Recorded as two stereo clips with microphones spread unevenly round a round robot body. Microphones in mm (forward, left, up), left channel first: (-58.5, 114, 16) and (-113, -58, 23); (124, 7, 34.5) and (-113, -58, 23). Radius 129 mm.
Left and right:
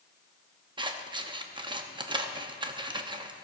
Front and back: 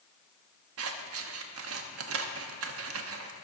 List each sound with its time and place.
0.8 s scissors: 170° right, 0.9 m